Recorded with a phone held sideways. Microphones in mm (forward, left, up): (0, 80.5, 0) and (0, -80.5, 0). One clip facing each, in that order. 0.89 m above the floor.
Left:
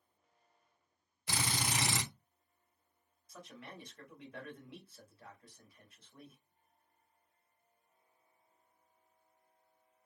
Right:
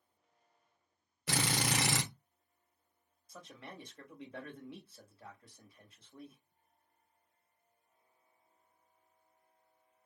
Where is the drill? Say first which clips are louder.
Right 4 dB; 75° right (ahead or behind), 1.0 m.